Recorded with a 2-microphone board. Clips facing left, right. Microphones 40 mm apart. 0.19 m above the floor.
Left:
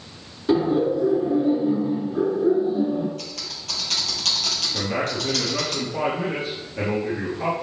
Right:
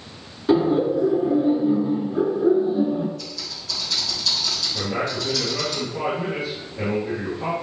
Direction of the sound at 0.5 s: 15° right (ahead or behind).